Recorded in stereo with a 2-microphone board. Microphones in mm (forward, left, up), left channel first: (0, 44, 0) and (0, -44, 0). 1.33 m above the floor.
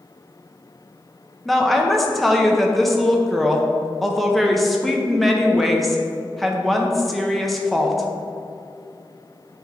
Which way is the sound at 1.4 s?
Centre (ahead or behind).